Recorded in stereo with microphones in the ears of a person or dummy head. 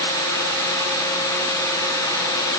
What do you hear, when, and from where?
Only background noise.